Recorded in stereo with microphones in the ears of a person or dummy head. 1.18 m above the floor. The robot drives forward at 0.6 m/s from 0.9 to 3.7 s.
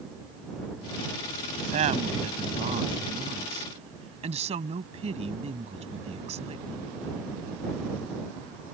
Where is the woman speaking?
40° right (ahead or behind); by 6.9 s 30° right (ahead or behind).